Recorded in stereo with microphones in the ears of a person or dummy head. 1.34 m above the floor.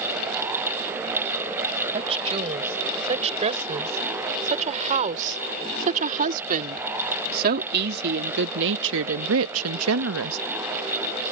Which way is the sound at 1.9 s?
30° right (ahead or behind).